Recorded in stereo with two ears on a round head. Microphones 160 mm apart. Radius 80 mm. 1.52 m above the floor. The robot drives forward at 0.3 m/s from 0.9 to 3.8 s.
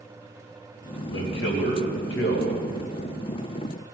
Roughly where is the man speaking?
Left.